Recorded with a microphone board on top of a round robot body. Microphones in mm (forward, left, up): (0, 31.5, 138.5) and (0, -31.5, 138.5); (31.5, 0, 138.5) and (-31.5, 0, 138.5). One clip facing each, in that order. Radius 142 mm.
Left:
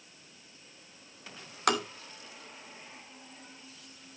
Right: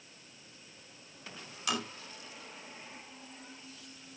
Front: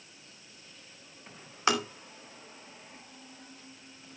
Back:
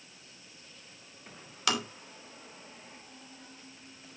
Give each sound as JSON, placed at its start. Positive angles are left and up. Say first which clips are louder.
{"t": 1.7, "sound": "tapping", "louder": "left 7 dB, front 4 dB", "azimuth_deg": 60, "distance_m": 2.5}